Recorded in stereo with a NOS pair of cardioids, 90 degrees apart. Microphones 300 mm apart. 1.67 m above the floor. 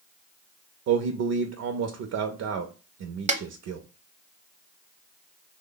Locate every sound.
0.9 s a man speaking: 60° right, 0.6 m
3.3 s a snare drum: 25° right, 0.7 m